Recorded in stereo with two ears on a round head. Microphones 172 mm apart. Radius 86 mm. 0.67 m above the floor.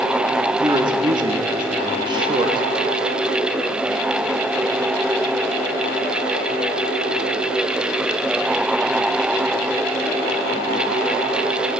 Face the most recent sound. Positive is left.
turn(degrees=-25)  # may be behind; listen again after turning